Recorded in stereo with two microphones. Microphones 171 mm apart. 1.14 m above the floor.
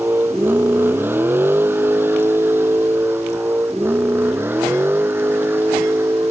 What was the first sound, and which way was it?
A vehicle, 10° right (ahead or behind).